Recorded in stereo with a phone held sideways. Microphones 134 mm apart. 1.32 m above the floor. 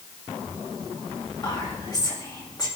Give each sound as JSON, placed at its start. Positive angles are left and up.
{"t": 1.4, "sound": "whispering", "side_deg": 30, "distance_m": 3.0}